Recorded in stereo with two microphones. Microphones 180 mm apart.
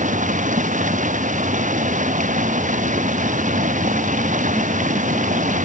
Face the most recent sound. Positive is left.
turn(degrees=-50)  # may be behind; listen again after turning